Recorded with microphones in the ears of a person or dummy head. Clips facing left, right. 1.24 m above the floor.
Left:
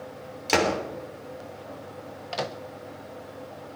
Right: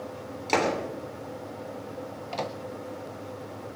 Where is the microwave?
10° left (ahead or behind), 0.7 m.